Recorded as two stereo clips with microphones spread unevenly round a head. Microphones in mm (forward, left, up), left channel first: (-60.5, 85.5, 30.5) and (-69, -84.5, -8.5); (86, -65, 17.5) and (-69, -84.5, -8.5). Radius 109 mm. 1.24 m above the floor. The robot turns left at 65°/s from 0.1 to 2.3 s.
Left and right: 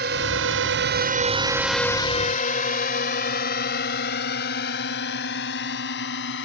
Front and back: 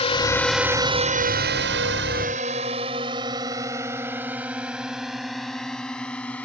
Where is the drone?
45° right; by 6.5 s 90° left.